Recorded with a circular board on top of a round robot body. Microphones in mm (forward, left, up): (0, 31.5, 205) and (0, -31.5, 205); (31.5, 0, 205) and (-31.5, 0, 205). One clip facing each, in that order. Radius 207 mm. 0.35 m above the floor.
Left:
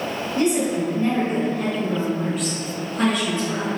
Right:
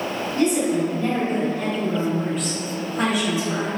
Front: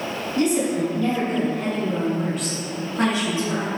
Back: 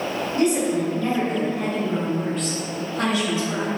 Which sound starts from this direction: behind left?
A woman speaking, at 0.3 s.